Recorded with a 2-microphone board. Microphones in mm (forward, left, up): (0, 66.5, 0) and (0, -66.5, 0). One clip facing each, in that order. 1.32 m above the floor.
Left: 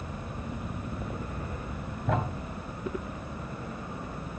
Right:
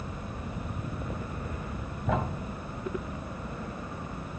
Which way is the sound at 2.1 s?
Centre (ahead or behind).